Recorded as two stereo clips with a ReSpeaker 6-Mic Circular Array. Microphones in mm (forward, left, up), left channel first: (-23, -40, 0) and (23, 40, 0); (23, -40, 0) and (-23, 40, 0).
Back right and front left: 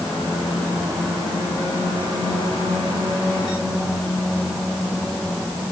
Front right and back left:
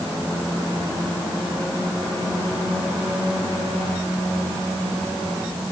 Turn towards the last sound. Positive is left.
No sound to turn to.